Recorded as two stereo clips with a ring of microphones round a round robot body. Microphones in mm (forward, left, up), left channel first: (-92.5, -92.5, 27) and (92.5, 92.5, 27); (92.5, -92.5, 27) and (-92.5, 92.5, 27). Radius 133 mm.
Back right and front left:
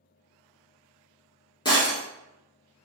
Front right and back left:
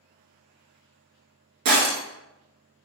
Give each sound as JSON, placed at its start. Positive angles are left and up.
{"t": 1.6, "sound": "breaking glass", "azimuth_deg": 150, "distance_m": 0.8}